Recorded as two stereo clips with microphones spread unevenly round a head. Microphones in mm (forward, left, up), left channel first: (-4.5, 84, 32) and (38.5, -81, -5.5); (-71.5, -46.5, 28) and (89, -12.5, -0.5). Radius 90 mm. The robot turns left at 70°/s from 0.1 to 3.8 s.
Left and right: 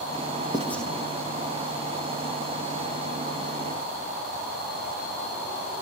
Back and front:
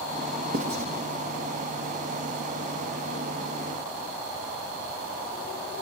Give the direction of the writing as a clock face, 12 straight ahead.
11 o'clock.